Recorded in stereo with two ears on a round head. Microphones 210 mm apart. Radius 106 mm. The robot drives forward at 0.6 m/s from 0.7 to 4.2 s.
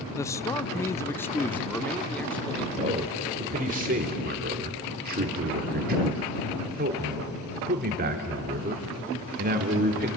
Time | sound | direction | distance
0.2 | a man speaking | 15° left (ahead or behind) | 0.5 m
2.8 | a man speaking | 30° right (ahead or behind) | 2.5 m